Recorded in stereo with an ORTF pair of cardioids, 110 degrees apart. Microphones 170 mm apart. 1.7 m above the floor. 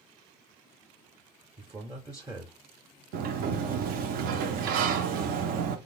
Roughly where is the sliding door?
Ahead right.